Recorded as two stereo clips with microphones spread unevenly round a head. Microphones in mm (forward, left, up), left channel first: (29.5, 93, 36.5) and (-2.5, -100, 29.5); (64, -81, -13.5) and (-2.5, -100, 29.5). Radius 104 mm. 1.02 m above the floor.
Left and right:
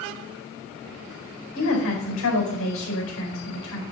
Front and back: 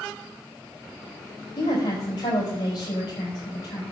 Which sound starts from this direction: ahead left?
A woman speaking, at 1.6 s.